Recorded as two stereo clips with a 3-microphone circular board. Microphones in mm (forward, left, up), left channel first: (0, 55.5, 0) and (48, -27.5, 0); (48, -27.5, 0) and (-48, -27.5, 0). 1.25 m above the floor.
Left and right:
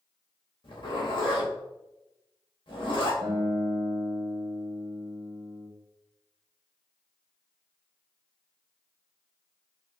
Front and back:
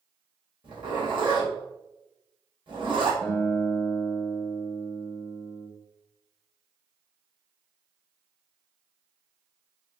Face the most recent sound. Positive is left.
turn(degrees=-80)